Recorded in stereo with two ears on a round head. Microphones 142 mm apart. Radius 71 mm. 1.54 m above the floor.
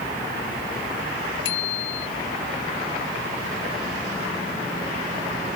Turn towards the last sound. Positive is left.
turn(degrees=85)